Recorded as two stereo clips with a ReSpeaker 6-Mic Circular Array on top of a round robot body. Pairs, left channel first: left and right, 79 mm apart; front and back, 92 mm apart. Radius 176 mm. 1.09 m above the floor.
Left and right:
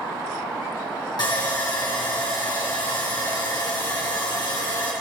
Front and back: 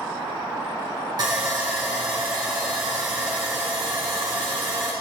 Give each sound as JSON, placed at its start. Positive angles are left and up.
{"t": 1.2, "sound": "sawing", "azimuth_deg": 130, "distance_m": 3.0}